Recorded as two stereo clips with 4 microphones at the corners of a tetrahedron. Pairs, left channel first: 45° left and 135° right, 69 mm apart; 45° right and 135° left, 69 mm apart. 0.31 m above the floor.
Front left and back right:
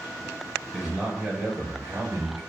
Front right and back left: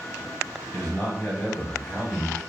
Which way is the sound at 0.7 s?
40° right.